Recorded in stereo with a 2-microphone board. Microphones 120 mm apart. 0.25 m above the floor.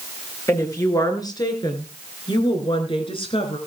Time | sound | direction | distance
0.5 | a woman speaking | 25° left (ahead or behind) | 4 m